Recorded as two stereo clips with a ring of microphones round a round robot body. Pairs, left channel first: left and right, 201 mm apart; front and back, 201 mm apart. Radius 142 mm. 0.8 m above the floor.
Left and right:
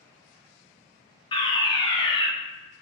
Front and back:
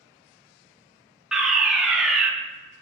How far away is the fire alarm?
About 1.4 m.